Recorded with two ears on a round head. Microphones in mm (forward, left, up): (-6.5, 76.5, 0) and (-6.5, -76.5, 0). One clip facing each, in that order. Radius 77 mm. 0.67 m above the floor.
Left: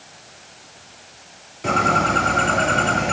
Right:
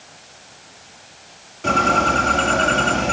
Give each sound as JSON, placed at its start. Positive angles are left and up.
{"t": 1.6, "sound": "a bird", "side_deg": 5, "distance_m": 5.5}